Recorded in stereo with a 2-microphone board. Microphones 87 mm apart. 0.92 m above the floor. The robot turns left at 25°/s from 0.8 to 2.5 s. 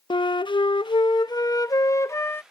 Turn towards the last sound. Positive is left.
turn(degrees=25)